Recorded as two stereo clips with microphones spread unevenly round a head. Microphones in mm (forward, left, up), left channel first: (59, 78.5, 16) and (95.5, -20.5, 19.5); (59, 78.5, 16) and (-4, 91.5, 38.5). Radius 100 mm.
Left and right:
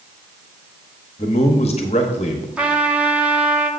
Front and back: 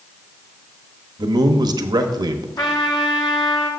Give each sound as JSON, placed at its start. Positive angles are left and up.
{"t": 1.2, "sound": "a man speaking", "azimuth_deg": 160, "distance_m": 0.9}
{"t": 2.6, "sound": "a trumpet", "azimuth_deg": 5, "distance_m": 2.0}